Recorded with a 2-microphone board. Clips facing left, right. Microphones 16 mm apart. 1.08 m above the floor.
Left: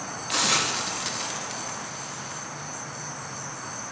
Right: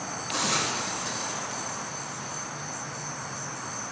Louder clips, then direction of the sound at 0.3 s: Left 4 dB; 45° left (ahead or behind).